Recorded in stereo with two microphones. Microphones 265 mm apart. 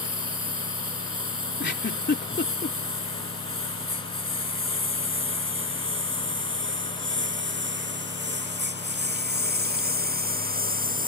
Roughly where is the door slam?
I don't hear a door slam.